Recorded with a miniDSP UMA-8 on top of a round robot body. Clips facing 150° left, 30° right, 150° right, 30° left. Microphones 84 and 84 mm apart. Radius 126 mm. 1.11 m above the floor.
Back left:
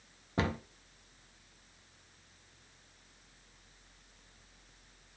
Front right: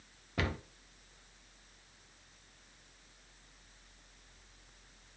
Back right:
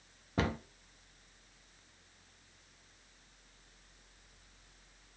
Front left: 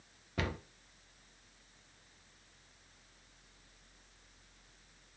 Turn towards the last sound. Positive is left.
turn(degrees=-175)